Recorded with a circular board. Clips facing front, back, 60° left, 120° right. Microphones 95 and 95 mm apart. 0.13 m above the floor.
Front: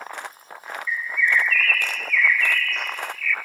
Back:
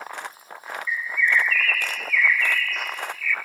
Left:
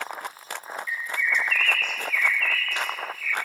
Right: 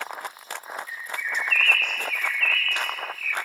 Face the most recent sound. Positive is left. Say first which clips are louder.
# even, left 8 dB
turn(degrees=-95)